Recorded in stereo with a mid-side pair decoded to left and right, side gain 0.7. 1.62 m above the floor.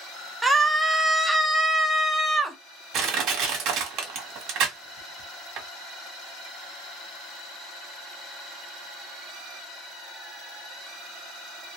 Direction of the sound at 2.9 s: 55° right.